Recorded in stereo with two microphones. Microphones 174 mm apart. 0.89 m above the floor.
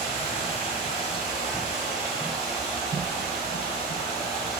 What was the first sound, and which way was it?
Running water, 35° left (ahead or behind).